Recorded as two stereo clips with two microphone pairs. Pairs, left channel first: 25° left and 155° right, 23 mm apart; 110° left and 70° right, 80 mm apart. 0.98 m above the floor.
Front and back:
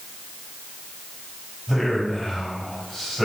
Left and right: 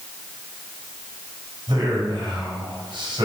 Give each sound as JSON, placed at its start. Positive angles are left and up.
{"t": 1.7, "sound": "a man speaking", "azimuth_deg": -65, "distance_m": 6.0}